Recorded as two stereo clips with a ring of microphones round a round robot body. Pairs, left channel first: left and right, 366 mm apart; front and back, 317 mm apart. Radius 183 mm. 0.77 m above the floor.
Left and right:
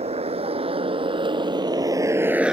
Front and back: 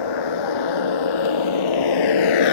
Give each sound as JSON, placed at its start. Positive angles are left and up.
{"t": 0.0, "sound": "a motorcycle", "azimuth_deg": -15}